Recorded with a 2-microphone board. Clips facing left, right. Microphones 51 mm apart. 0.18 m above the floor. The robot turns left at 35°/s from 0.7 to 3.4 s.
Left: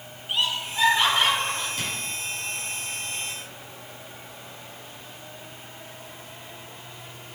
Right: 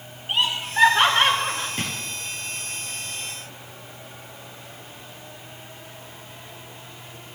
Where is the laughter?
55° right (ahead or behind), 2.5 m; by 1.7 s 40° right (ahead or behind), 2.5 m.